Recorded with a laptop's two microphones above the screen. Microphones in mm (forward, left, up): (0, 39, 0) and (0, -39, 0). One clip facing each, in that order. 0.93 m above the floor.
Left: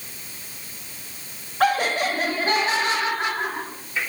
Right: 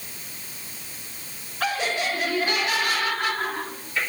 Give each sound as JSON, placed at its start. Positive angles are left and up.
{"t": 1.6, "sound": "laughter", "side_deg": 55, "distance_m": 1.6}